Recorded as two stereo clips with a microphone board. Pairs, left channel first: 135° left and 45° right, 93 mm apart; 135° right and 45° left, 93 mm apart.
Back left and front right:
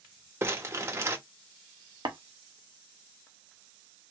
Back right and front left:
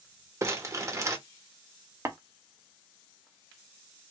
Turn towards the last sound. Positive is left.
turn(degrees=-15)